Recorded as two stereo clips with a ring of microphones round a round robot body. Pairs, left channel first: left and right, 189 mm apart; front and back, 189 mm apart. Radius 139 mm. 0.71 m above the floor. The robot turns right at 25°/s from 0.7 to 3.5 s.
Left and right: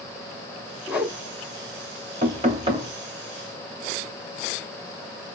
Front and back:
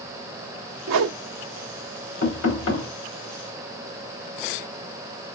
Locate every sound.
0.9 s a whoosh: 175° right, 0.6 m; by 1.2 s 170° right, 0.6 m
2.2 s knocking: 40° right, 2.5 m; by 2.9 s 25° right, 2.5 m